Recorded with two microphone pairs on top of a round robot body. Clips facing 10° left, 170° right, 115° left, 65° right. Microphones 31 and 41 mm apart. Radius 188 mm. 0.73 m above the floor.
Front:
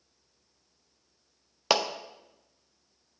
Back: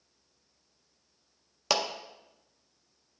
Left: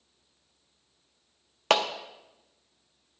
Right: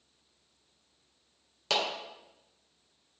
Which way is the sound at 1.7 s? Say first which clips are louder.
Front 3 dB, left 6 dB; 75° left.